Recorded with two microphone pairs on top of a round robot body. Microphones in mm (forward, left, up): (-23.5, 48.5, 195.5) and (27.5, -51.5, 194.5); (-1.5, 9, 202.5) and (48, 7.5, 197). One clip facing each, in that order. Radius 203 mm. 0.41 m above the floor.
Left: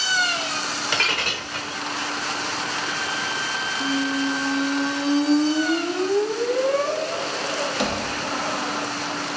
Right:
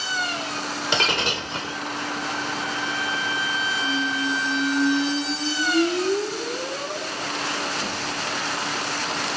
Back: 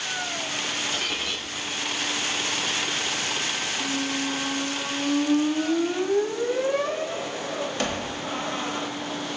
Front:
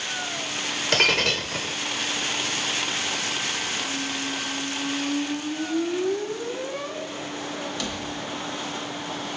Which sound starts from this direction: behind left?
A squeak, at 3.8 s.